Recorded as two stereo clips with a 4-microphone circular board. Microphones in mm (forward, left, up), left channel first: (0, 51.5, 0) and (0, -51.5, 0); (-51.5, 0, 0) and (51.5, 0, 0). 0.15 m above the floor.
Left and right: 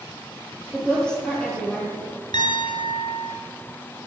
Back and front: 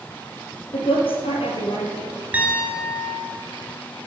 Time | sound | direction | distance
0.7 | a woman speaking | 170° left | 3 m
2.3 | a piano | 70° left | 2.0 m